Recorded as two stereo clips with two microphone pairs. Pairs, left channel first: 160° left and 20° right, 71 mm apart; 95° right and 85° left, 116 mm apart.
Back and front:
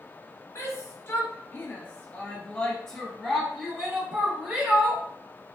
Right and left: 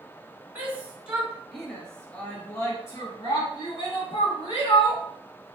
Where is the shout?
155° left, 1.5 m; by 5.0 s 85° right, 1.8 m.